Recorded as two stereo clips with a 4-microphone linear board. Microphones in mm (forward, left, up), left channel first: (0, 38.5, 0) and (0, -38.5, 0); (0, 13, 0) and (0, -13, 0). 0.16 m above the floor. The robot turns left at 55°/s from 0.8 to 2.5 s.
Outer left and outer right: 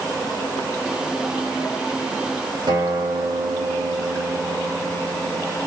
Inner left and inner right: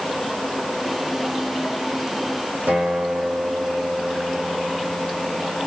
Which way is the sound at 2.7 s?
80° right.